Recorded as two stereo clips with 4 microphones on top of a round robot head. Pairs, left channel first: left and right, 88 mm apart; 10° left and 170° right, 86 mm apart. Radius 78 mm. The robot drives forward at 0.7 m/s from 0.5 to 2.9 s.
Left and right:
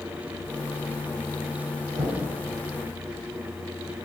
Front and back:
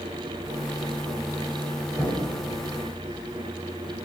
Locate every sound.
1.9 s knocking: 95° right, 3 m; by 2.3 s 100° right, 3 m